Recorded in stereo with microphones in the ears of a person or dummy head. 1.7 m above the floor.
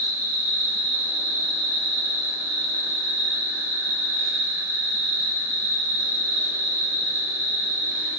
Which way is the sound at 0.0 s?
10° right (ahead or behind).